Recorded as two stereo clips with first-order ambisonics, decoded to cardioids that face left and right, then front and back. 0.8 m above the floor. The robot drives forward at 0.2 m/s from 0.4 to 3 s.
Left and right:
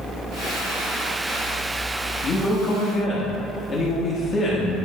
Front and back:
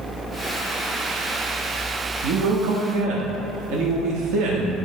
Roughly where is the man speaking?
Behind left.